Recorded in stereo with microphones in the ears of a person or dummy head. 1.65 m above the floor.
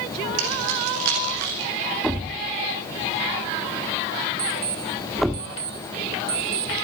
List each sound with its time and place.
0.4 s keys jangling: 80° right, 7 m; by 1.7 s 70° right (ahead or behind), 7.5 m
2.0 s a thud: centre (ahead or behind), 1.3 m
4.4 s an alarm clock: 20° right (ahead or behind), 2.5 m